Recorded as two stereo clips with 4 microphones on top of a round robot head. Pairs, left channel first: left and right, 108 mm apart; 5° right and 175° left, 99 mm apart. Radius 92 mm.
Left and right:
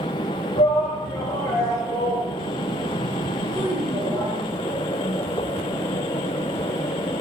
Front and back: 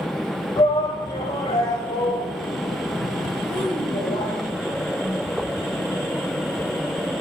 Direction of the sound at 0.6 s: 35° left.